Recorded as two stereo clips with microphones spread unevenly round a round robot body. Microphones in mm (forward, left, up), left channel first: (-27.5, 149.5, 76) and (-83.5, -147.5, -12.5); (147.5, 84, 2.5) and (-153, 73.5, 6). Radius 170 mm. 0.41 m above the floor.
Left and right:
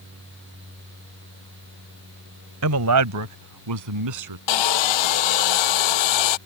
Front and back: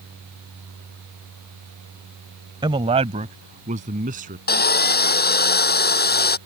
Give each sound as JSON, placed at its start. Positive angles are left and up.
{"t": 2.6, "sound": "a man speaking", "azimuth_deg": -100}
{"t": 4.5, "sound": "sawing", "azimuth_deg": 60}